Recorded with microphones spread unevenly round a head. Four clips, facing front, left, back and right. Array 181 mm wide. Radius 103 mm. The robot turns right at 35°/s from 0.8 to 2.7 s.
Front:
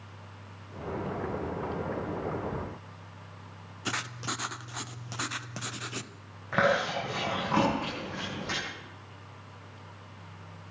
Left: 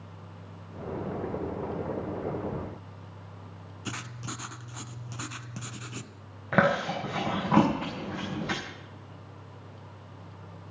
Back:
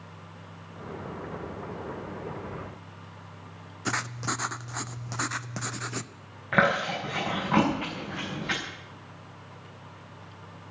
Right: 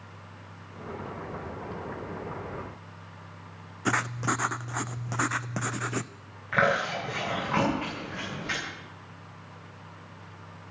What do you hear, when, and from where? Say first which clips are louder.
3.9 s writing: right 12 dB, back 4 dB; 100° right, 0.7 m
6.5 s chewing: left 1 dB, back 2 dB; 110° left, 6.5 m